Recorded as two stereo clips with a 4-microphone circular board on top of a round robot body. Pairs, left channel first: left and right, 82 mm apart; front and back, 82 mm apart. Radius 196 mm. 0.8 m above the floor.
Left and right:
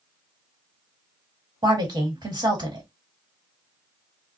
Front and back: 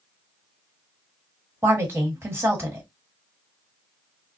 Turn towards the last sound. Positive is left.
turn(degrees=-120)